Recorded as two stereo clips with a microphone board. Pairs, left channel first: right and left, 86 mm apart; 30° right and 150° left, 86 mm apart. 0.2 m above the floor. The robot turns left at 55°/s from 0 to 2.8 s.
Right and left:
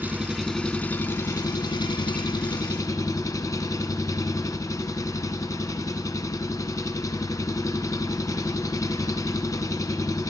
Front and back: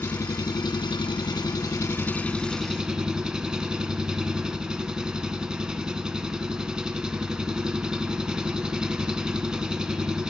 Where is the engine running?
25° left, 0.8 m; by 10.3 s 130° right, 0.8 m.